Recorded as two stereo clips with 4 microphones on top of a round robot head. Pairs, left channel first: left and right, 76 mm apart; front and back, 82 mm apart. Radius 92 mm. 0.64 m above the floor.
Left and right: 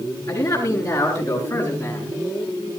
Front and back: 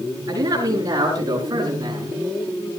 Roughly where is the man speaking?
Behind left.